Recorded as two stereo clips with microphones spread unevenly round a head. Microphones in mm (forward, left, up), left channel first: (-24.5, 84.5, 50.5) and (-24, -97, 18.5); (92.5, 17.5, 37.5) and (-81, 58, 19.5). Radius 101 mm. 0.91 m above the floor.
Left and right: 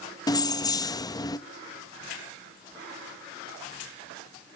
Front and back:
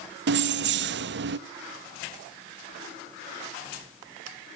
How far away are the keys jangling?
About 0.8 m.